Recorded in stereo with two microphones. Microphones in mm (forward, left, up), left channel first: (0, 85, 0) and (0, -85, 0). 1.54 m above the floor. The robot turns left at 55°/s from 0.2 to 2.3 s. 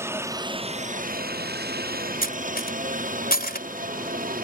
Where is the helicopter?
15° right (ahead or behind); by 4.5 s 55° right (ahead or behind).